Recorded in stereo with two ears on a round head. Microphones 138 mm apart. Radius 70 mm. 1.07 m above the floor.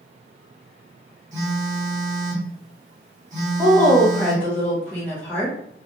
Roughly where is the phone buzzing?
Right.